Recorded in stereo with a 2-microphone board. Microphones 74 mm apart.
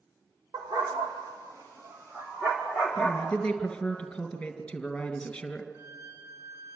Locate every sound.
0.5 s a dog barking: 75° right (ahead or behind), 3 m; by 3.4 s 5° right (ahead or behind), 4 m
3.0 s a man speaking: 10° left (ahead or behind), 2.5 m
5.7 s a violin: 35° right (ahead or behind), 2.5 m